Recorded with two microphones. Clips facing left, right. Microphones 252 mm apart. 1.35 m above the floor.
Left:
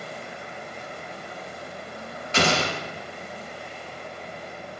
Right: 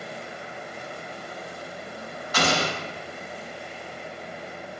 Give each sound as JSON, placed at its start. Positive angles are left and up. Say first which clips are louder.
{"t": 2.3, "sound": "an explosion", "louder": "left 2 dB", "side_deg": 25, "distance_m": 0.6}